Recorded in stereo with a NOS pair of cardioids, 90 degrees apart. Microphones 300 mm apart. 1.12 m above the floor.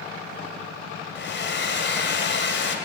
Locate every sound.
1.1 s a hair dryer: 40° left, 2.5 m